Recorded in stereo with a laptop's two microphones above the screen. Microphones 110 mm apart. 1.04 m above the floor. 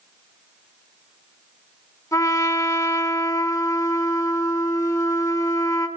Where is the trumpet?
30° left (ahead or behind), 3.5 m.